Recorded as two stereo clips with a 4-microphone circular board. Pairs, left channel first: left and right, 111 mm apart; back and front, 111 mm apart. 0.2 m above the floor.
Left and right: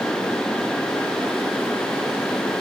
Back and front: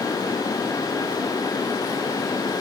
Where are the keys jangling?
I don't hear keys jangling.